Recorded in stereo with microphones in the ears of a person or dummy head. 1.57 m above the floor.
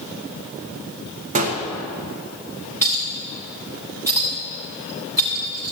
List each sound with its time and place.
1.4 s a gunshot: 40° right (ahead or behind), 1.4 m
2.8 s a clink: 20° left (ahead or behind), 4 m